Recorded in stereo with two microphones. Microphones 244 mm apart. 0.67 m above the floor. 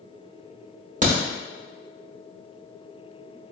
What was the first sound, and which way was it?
A crack, 30° right (ahead or behind).